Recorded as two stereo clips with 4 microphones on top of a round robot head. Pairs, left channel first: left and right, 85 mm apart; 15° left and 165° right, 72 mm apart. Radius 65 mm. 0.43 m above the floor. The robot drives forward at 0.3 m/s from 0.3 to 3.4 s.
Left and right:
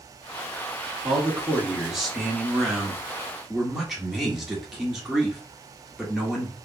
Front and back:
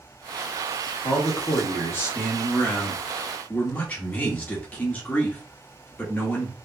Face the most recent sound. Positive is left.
turn(degrees=-10)